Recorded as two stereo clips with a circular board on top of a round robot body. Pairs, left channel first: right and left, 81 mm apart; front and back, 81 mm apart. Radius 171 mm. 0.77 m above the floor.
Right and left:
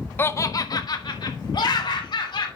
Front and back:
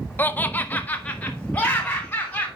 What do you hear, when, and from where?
0.2 s laughter: 50° right, 0.7 m; by 2.5 s 75° right, 3 m